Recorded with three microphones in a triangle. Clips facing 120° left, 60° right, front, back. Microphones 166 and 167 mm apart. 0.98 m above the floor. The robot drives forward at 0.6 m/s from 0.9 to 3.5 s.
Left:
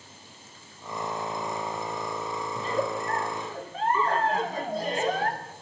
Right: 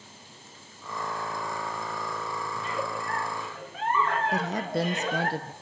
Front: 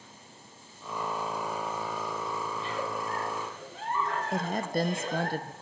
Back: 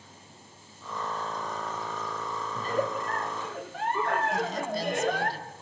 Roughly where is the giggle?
Behind left.